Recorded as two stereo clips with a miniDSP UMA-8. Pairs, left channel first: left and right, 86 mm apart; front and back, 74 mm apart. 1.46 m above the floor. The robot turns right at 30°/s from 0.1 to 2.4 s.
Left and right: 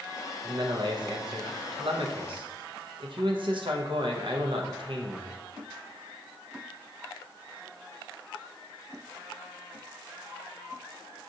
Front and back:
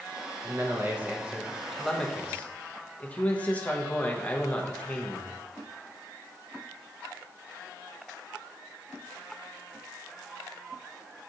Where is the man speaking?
130° right, 0.7 m; by 5.3 s 70° right, 0.7 m.